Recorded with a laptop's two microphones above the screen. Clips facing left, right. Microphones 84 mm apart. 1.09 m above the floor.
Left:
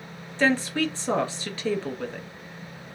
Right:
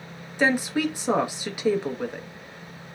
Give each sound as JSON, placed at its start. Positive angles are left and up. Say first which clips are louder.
{"t": 0.4, "sound": "a woman speaking", "louder": "even", "side_deg": -10, "distance_m": 0.7}